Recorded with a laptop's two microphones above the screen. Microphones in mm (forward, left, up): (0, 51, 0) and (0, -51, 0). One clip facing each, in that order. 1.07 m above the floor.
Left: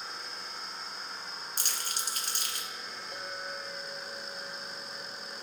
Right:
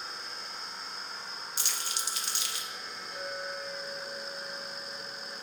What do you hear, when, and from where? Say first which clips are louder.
1.6 s crumpling: right 1 dB; 50° left (ahead or behind), 1.0 m
3.1 s a clink: right 3 dB; 85° left, 2 m